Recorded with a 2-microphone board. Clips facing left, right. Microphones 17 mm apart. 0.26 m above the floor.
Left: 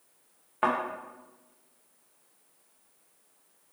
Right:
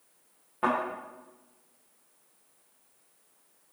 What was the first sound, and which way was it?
A thud, 40° left (ahead or behind).